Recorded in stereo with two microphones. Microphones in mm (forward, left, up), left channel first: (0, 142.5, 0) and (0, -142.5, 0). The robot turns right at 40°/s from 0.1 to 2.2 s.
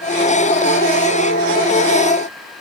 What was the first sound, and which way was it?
Only background noise.